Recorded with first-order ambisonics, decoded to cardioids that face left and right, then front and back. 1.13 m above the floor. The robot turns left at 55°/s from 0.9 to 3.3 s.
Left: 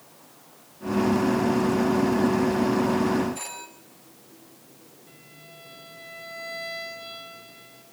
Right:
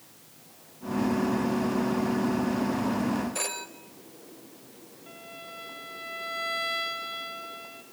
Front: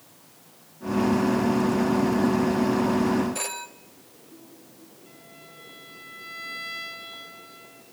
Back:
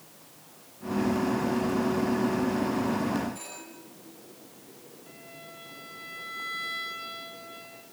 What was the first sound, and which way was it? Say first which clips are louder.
A phone ringing: right 4 dB, front 10 dB; 40° right.